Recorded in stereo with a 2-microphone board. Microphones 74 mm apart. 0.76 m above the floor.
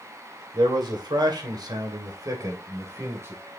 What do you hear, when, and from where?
0.5 s a man speaking: 80° right, 2.5 m; by 3.4 s 35° right (ahead or behind), 3 m